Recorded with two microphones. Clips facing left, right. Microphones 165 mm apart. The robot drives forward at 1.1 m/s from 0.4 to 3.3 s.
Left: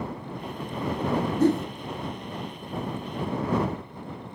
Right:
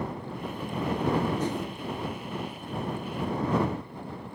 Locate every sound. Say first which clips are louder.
1.4 s a whoosh: left 9 dB; 60° left (ahead or behind), 0.7 m